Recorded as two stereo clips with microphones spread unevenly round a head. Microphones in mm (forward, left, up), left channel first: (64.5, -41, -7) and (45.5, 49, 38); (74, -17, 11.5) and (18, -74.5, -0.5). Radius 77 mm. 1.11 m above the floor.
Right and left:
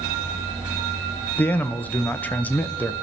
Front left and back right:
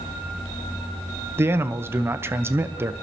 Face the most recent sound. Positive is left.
turn(degrees=-100)